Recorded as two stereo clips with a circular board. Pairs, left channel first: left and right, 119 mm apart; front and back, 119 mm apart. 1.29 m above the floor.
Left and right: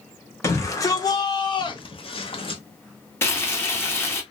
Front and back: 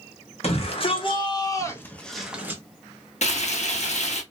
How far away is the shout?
About 1.2 m.